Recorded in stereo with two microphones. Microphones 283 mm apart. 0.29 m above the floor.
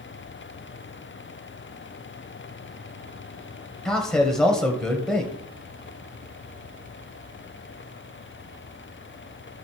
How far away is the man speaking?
About 1.7 m.